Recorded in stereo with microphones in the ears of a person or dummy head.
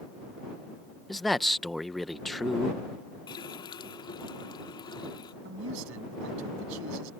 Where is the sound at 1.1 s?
Centre (ahead or behind).